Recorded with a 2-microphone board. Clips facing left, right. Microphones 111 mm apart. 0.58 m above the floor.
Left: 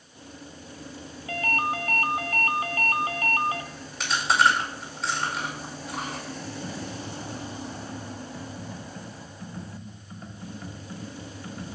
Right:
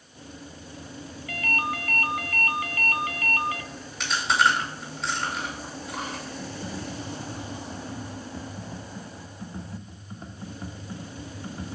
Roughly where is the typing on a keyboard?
Right.